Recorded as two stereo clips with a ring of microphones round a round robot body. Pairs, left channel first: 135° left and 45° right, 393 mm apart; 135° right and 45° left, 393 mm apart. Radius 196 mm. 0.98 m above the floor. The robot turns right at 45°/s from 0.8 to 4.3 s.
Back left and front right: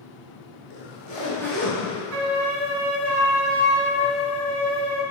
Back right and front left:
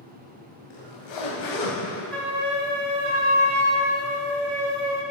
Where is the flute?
50° right, 0.9 m; by 5.0 s 50° left, 0.9 m.